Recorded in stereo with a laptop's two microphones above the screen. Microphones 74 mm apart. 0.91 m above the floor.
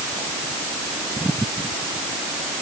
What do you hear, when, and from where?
Only background noise.